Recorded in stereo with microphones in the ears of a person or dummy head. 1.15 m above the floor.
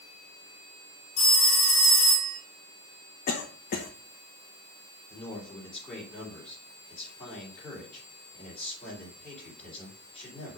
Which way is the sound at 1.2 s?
30° left (ahead or behind).